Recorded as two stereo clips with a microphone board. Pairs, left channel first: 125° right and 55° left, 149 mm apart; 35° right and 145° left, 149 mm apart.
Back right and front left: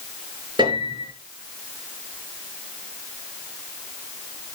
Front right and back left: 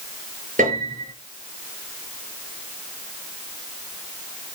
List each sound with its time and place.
0.6 s a piano: 115° left, 8 m